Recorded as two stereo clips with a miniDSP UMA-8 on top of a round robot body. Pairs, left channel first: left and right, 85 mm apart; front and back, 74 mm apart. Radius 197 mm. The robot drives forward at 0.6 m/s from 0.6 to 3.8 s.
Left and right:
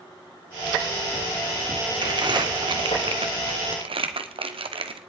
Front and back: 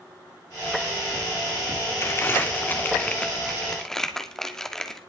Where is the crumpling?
55° right, 2.5 m; by 5.0 s 85° right, 2.0 m.